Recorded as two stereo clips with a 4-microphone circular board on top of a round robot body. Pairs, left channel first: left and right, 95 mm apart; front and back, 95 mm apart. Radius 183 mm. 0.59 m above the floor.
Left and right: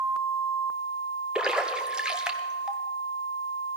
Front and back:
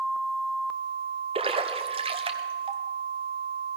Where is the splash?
170° right, 1.2 m.